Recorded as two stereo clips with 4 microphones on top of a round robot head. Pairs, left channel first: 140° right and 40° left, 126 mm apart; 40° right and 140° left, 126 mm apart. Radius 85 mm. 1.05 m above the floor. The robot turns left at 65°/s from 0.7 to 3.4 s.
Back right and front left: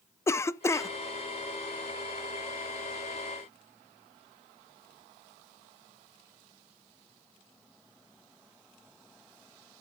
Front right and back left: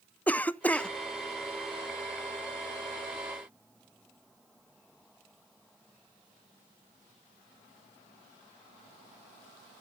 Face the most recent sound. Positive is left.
turn(degrees=80)